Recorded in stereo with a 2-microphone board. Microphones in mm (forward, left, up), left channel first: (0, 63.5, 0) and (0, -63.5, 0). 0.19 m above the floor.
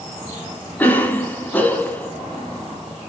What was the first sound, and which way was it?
A cough, 15° left (ahead or behind).